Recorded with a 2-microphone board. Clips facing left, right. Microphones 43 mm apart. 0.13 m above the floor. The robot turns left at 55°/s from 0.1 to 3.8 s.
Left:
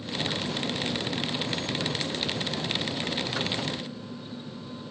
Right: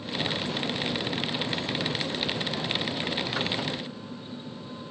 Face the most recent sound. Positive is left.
No sound to turn to.